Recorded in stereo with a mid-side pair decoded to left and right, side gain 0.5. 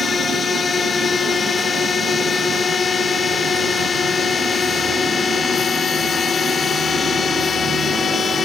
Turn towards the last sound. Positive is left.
turn(degrees=40)